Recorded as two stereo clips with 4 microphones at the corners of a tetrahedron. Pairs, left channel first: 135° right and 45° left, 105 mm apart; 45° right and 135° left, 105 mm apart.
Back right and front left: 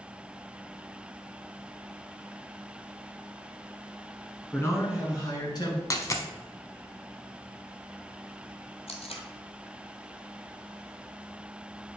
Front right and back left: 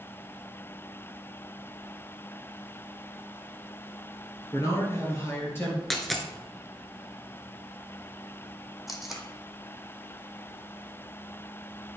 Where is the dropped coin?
130° right, 0.7 m.